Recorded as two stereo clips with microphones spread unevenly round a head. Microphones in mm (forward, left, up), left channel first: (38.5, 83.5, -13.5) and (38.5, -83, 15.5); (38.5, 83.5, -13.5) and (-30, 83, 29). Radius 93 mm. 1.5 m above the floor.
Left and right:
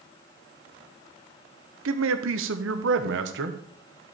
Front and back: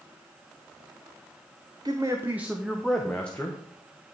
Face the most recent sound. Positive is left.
turn(degrees=-65)